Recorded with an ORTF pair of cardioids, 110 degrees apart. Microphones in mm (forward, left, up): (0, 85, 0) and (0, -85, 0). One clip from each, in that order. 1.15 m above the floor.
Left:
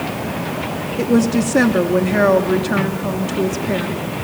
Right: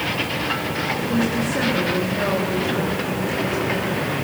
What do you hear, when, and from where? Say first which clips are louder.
1.0 s a woman speaking: left 5 dB; 65° left, 3 m